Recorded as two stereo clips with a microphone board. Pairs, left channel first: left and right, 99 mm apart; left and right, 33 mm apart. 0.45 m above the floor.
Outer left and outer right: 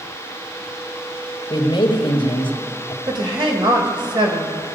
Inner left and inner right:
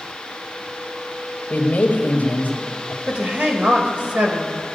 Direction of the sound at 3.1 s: 60° right (ahead or behind).